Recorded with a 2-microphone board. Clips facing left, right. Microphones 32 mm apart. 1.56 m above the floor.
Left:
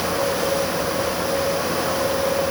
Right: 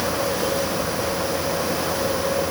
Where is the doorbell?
I don't hear a doorbell.